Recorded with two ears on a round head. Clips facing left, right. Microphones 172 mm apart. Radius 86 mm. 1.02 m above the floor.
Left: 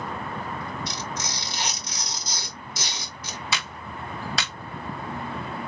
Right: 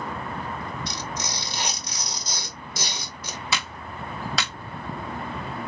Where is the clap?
75° right (ahead or behind), 1.8 m.